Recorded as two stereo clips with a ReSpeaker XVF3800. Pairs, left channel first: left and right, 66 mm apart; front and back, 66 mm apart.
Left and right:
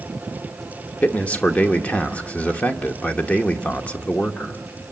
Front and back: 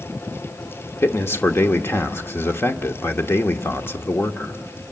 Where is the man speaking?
25° left, 1.1 m.